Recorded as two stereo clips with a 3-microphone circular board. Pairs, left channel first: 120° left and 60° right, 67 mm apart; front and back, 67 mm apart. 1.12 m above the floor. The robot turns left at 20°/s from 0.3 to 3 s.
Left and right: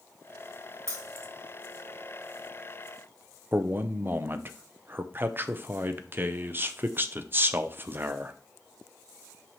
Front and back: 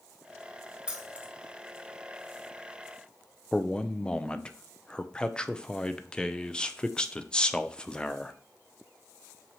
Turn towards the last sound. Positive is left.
turn(degrees=-65)